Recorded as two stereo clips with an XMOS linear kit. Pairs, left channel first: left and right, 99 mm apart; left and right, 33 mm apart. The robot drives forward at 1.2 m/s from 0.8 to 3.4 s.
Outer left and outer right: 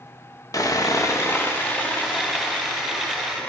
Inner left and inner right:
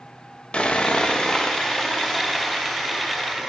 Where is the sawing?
35° left (ahead or behind), 1.2 m; by 3.5 s 10° left (ahead or behind), 4 m.